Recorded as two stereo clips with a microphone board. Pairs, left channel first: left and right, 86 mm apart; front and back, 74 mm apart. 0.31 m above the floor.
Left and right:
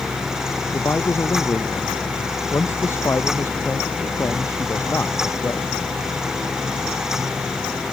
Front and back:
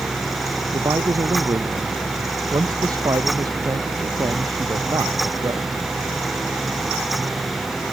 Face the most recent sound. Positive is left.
turn(degrees=150)